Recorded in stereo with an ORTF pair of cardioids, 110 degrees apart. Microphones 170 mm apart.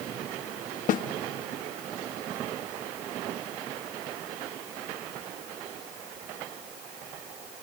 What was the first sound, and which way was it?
A snare drum, 60° left.